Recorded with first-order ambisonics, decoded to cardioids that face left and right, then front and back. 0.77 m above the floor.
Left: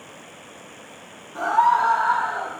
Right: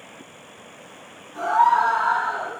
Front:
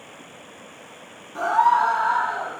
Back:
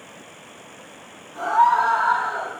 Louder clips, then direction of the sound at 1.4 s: Right 1 dB, back 1 dB; 35° left.